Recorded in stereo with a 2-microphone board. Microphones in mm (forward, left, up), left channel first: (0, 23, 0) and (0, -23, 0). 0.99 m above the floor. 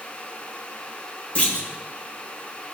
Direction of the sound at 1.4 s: 30° left (ahead or behind).